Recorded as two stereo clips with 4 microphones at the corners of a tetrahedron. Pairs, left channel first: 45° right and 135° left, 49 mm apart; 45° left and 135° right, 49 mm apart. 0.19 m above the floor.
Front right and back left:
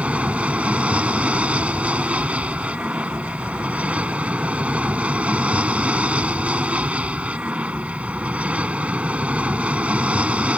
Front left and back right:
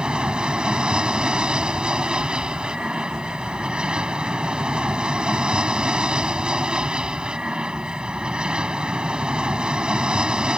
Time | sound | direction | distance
0.0 | an aircraft | 170° left | ?